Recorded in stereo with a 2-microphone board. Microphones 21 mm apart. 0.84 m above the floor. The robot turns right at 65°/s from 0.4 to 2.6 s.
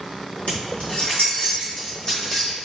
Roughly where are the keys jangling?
Left.